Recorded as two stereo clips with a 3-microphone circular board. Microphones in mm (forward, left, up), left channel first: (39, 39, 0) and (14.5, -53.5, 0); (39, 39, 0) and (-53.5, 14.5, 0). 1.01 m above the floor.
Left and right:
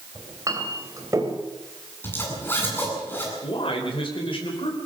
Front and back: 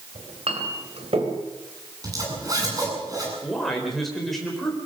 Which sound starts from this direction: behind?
A clink, at 0.1 s.